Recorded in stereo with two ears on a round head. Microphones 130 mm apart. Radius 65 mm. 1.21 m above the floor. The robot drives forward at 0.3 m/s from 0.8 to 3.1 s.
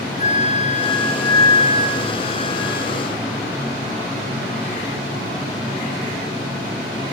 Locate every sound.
0.2 s a flute: 45° left (ahead or behind), 2 m; by 2.9 s 35° left (ahead or behind), 2.5 m